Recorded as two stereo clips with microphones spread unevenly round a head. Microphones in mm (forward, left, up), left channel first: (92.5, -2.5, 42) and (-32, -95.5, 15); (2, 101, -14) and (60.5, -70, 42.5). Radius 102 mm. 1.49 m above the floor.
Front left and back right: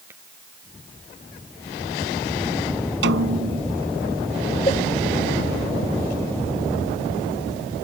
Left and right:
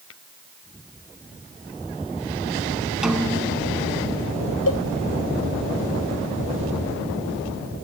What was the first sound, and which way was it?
Tapping, 135° left.